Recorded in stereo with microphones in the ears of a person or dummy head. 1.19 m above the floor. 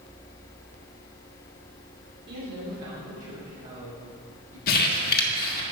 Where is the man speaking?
50° right (ahead or behind), 3 m; by 4.6 s 30° right (ahead or behind), 4 m.